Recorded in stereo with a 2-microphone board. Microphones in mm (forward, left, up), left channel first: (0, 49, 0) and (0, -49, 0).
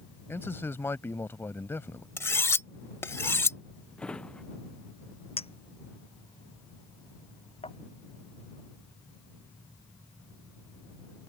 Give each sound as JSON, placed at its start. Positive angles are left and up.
{"t": 0.3, "sound": "a man speaking", "side_deg": 25}
{"t": 2.2, "sound": "cutlery clinking", "side_deg": 25}
{"t": 4.0, "sound": "a drawer", "side_deg": 10}
{"t": 5.4, "sound": "a clink", "side_deg": 85}